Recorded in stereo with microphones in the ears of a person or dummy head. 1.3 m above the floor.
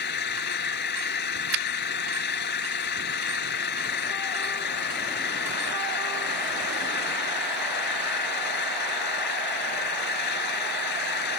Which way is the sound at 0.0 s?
60° left (ahead or behind).